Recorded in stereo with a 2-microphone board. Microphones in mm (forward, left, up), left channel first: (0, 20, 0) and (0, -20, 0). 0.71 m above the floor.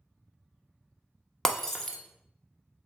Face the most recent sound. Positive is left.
turn(degrees=10)  # may be behind; listen again after turning